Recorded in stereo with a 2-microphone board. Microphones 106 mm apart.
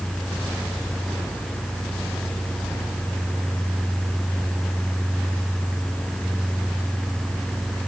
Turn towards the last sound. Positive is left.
No sound to turn to.